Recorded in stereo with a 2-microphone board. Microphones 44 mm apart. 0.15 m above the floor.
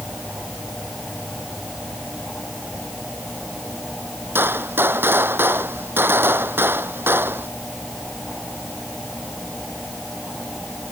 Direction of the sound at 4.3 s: 60° right (ahead or behind).